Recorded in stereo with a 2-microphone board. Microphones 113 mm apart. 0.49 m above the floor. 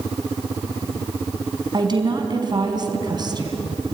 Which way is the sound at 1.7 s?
40° right (ahead or behind).